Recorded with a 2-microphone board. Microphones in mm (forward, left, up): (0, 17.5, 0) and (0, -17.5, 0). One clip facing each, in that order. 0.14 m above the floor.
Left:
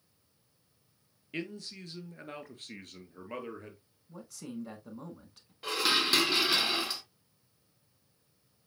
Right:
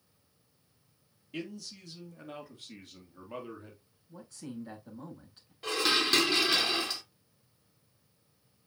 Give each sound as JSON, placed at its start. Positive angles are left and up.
{"t": 1.3, "sound": "a man speaking", "side_deg": 40, "distance_m": 2.0}
{"t": 4.1, "sound": "a man speaking", "side_deg": 75, "distance_m": 6.5}
{"t": 5.6, "sound": "dishes clattering", "side_deg": 5, "distance_m": 0.8}